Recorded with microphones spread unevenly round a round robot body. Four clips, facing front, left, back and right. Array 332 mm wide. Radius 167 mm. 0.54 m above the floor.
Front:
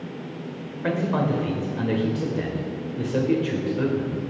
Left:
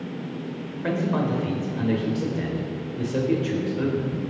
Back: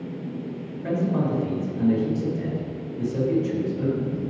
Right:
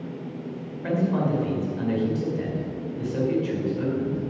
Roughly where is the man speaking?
Ahead left.